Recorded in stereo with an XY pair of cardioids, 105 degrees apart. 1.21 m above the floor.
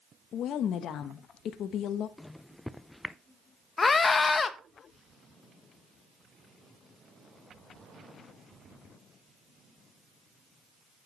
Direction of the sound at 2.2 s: 10° left.